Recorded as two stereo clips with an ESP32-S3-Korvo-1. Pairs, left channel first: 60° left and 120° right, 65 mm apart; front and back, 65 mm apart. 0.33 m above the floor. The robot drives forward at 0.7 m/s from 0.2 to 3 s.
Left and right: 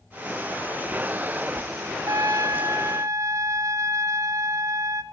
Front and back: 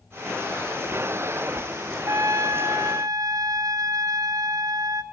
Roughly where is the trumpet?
Behind right.